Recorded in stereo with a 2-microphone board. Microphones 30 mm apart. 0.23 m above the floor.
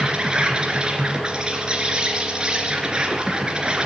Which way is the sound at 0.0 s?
30° right (ahead or behind).